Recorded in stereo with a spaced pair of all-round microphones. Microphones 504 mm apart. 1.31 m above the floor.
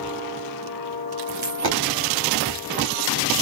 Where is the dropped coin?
45° right (ahead or behind), 1.1 m.